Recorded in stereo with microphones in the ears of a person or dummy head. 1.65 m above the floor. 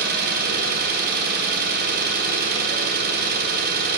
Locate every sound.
0.0 s an engine running: 55° right (ahead or behind), 1.0 m